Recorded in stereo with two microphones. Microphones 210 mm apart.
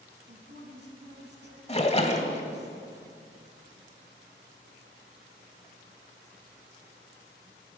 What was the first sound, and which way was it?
A woman speaking, 60° right (ahead or behind).